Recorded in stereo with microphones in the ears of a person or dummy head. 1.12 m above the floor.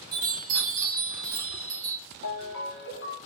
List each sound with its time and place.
0.1 s a chime: 25° right (ahead or behind), 0.9 m
2.2 s a ringtone: 60° left (ahead or behind), 0.8 m